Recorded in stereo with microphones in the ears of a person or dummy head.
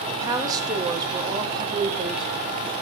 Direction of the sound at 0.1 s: 15° right (ahead or behind).